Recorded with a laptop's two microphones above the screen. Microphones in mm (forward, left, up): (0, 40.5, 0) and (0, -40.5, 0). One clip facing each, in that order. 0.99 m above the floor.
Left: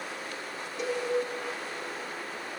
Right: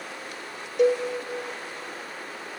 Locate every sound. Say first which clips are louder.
0.8 s a cowbell: right 12 dB; 65° right (ahead or behind), 1.7 m